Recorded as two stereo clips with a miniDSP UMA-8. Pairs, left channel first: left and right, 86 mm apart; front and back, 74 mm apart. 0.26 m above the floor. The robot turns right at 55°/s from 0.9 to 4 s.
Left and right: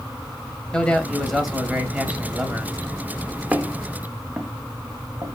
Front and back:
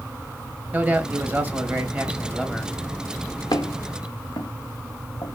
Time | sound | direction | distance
0.7 | a man speaking | 155° left | 1.3 m
3.5 | footsteps | 20° right | 1.4 m